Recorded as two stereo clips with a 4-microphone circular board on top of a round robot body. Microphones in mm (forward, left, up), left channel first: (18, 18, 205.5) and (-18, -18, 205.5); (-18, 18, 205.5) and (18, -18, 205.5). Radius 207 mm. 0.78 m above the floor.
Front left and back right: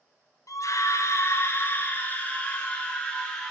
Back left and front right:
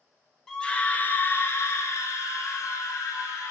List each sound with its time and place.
0.5 s a scream: 55° left, 1.1 m; by 3.5 s 120° left, 2.5 m